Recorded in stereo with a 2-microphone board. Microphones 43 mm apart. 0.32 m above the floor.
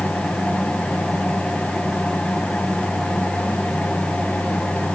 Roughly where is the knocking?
No knocking in this recording.